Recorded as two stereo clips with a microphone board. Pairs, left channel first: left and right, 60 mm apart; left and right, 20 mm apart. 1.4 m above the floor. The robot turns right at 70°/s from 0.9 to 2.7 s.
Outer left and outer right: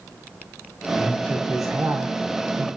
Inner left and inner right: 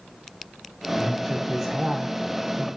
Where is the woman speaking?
140° left, 5 m; by 2.7 s 100° right, 5 m.